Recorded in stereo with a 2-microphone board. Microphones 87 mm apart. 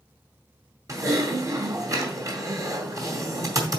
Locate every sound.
0.9 s typing on a keyboard: 40° right (ahead or behind), 2 m